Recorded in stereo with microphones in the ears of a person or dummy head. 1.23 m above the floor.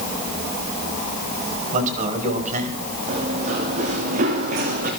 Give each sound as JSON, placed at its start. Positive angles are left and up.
{"t": 1.7, "sound": "a man speaking", "side_deg": -45, "distance_m": 5.5}
{"t": 3.1, "sound": "running footsteps", "side_deg": -40, "distance_m": 6.0}